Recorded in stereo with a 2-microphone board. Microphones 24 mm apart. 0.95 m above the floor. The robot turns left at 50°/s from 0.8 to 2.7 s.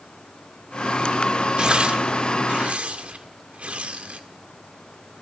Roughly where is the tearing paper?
Right.